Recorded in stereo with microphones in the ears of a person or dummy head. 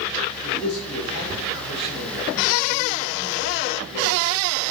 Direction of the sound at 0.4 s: 60° left (ahead or behind).